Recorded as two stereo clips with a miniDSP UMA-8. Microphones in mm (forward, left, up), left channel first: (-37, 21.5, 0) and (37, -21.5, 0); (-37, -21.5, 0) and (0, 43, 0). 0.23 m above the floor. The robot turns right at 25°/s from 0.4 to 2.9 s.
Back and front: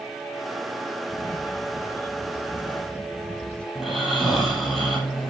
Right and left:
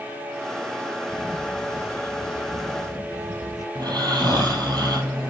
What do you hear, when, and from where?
1.1 s a camera shutter: 175° left, 0.8 m; by 3.6 s 140° right, 0.8 m
3.8 s snoring: 55° left, 4.5 m